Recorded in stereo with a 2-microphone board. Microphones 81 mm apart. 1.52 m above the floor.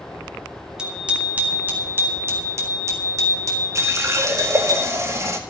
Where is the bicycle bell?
10° right (ahead or behind), 3 m; by 4.8 s 55° right (ahead or behind), 4.5 m.